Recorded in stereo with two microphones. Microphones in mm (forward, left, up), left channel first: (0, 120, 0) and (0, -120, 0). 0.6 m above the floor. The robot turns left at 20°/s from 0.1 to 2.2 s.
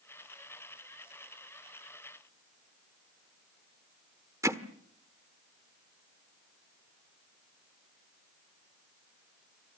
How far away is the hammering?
About 1.0 m.